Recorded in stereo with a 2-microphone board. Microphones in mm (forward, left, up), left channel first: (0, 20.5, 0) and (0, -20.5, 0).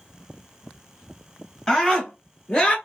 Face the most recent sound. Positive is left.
turn(degrees=15)  # may be behind; listen again after turning